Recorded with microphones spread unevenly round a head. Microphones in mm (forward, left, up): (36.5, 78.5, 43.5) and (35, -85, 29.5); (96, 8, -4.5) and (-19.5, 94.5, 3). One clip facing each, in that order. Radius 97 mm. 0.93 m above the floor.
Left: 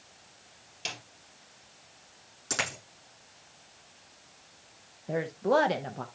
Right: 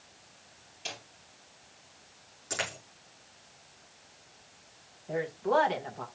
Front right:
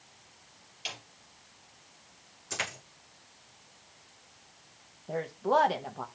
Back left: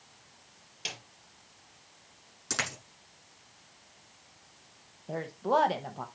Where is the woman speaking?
50° left, 1.0 m.